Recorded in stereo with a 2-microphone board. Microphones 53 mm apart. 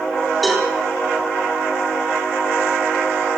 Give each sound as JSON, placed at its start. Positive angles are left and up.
{"t": 0.4, "sound": "a cowbell", "side_deg": 0, "distance_m": 5.0}